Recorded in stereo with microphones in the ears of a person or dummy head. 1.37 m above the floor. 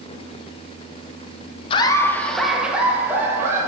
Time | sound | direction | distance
1.7 | laughter | 30° left (ahead or behind) | 0.6 m